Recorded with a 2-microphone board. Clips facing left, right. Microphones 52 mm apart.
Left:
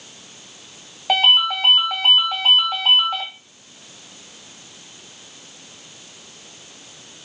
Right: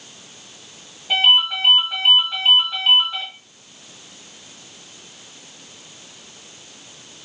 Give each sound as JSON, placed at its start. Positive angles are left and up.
{"t": 1.1, "sound": "a ringtone", "side_deg": 65, "distance_m": 2.0}